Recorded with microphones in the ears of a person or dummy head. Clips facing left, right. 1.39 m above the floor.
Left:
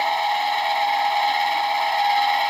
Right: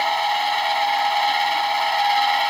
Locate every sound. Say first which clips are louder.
0.0 s a machine running: even; centre (ahead or behind)